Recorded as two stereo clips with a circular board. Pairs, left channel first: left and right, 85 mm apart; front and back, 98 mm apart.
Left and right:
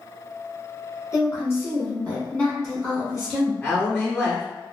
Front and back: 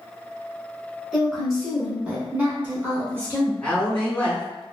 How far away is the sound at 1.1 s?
About 1.5 m.